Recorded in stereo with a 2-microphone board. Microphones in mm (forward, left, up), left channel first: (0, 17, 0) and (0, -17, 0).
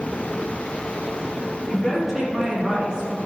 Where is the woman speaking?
10° left (ahead or behind), 2.0 m; by 3.2 s 30° right (ahead or behind), 2.0 m.